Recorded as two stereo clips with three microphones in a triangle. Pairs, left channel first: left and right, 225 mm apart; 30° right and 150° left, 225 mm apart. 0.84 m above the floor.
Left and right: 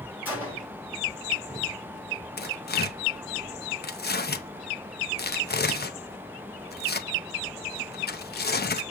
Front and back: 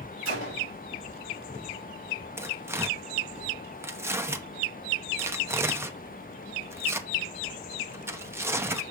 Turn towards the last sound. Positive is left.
turn(degrees=75)